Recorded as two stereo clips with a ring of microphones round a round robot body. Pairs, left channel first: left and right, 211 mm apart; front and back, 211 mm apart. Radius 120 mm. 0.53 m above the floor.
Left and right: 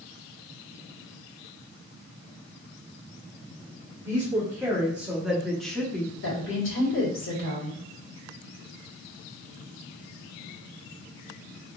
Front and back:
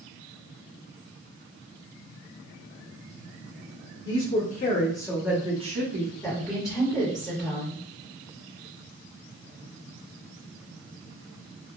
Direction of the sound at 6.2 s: 75° left.